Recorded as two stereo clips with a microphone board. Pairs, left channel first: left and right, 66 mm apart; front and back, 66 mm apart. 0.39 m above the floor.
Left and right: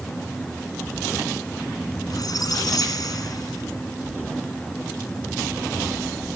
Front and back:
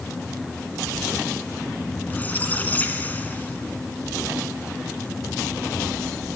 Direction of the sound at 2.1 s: 65° left.